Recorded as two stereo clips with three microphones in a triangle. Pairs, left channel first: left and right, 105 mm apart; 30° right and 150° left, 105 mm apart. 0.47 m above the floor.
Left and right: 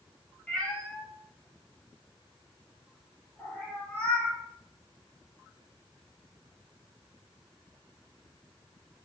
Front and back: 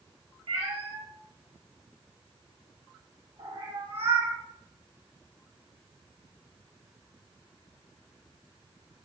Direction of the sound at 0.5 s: 165° left.